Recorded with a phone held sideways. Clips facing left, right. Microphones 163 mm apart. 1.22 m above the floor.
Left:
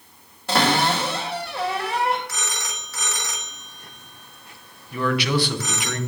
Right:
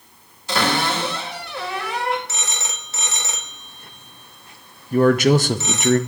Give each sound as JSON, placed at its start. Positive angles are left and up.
{"t": 0.5, "sound": "a cupboard door", "side_deg": 50, "distance_m": 2.5}
{"t": 2.3, "sound": "a phone ringing", "side_deg": -25, "distance_m": 0.9}
{"t": 4.9, "sound": "a man speaking", "side_deg": -40, "distance_m": 0.5}